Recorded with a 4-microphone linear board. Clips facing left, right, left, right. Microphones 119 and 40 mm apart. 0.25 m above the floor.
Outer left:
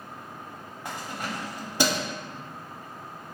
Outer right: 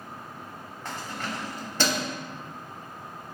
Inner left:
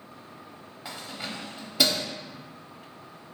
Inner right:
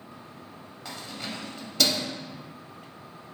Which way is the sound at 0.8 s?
10° left (ahead or behind).